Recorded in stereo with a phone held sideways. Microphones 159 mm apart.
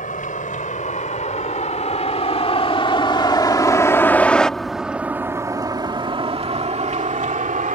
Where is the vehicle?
55° left (ahead or behind); by 7.8 s 55° right (ahead or behind).